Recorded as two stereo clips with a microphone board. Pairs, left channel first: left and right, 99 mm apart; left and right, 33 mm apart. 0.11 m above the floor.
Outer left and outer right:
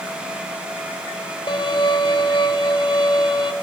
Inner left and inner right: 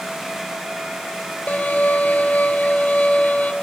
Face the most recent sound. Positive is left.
turn(degrees=50)  # may be behind; listen again after turning